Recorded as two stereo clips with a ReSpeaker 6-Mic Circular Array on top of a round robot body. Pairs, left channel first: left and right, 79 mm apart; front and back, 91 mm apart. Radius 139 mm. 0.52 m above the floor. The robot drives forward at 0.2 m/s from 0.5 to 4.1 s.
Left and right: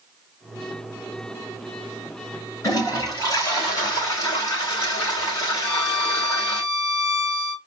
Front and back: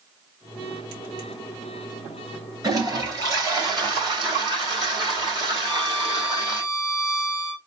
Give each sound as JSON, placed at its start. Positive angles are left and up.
{"t": 2.6, "sound": "a toilet flushing", "azimuth_deg": 135, "distance_m": 3.5}
{"t": 5.6, "sound": "a violin", "azimuth_deg": 155, "distance_m": 2.5}